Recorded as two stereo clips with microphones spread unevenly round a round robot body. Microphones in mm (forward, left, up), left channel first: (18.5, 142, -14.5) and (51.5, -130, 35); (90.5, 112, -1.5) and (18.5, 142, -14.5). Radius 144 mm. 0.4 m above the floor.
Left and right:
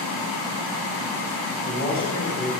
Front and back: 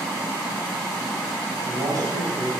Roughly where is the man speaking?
Behind.